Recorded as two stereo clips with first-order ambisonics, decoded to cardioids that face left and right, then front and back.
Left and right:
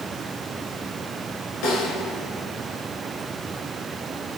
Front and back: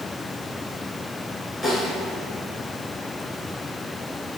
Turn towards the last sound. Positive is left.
turn(degrees=95)